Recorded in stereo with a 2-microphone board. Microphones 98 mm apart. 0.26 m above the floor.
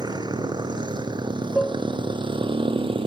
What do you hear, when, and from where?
0.0 s a motorcycle: 45° right (ahead or behind); by 3.1 s 65° right (ahead or behind)
1.6 s dishes clattering: 10° left (ahead or behind)